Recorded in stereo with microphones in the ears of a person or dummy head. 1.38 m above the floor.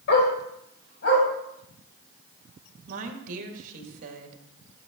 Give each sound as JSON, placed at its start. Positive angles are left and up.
{"t": 0.1, "sound": "a dog barking", "side_deg": 60, "distance_m": 2.0}
{"t": 2.9, "sound": "a woman speaking", "side_deg": -40, "distance_m": 1.9}